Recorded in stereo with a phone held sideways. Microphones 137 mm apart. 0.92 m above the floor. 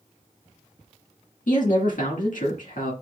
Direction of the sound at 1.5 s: 75° left (ahead or behind).